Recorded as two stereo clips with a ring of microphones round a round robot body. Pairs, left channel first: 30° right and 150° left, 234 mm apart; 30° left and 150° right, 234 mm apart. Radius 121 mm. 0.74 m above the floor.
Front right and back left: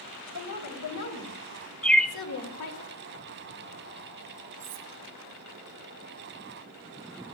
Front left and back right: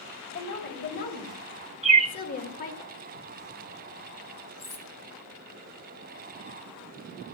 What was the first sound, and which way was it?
A woman speaking, 20° right.